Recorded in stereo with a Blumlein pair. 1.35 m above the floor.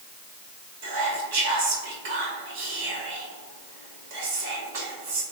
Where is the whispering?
50° right, 1.8 m.